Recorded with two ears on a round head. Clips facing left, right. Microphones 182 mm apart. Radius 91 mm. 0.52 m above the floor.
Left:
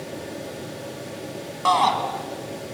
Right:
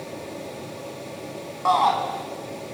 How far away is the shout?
About 3.5 m.